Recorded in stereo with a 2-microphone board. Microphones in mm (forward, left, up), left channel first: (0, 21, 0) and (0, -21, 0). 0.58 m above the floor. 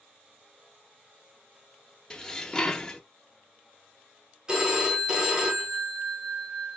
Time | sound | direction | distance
2.1 | dishes clattering | 15° left (ahead or behind) | 0.5 m
4.5 | a phone ringing | 20° right (ahead or behind) | 1.1 m